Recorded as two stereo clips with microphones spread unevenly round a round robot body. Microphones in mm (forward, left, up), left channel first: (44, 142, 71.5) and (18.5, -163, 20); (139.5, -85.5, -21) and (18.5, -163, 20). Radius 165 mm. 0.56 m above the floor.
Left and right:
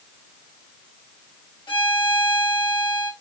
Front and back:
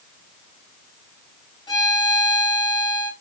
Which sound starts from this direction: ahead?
A violin, at 1.7 s.